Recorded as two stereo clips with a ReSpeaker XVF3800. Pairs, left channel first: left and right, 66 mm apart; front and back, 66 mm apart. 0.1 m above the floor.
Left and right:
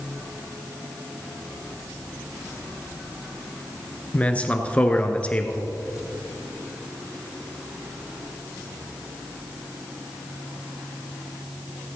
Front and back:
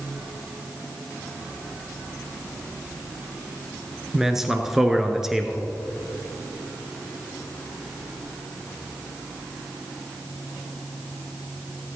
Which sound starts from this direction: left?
A man speaking, at 4.1 s.